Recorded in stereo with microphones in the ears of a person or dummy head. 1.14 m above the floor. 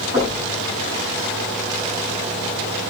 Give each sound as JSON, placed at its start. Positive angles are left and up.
{"t": 0.1, "sound": "knocking", "side_deg": -20, "distance_m": 7.0}